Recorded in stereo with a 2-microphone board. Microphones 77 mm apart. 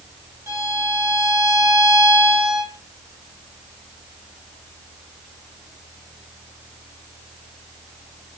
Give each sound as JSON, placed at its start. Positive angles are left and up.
{"t": 0.5, "sound": "a violin", "side_deg": -30, "distance_m": 1.5}